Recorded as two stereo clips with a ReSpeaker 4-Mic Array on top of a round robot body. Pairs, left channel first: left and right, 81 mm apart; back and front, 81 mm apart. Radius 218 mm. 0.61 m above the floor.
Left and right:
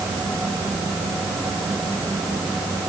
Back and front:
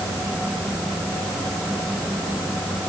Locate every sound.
Only background noise.